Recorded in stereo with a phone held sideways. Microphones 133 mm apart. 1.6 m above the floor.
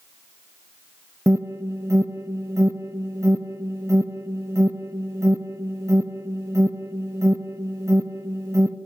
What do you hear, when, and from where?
1.3 s an alarm: 20° right (ahead or behind), 0.7 m